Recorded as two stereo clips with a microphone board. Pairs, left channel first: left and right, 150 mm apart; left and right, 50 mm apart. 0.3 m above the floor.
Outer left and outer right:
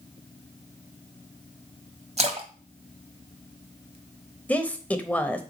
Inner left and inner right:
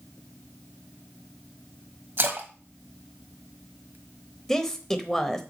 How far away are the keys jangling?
No keys jangling in this recording.